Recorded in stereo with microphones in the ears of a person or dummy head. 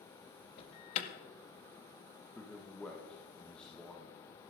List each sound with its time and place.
0.6 s an alarm: 50° left (ahead or behind), 1.8 m
2.4 s a man speaking: centre (ahead or behind), 1.6 m